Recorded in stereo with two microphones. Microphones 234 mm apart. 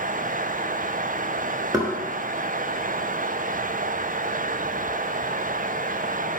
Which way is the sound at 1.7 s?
15° right (ahead or behind).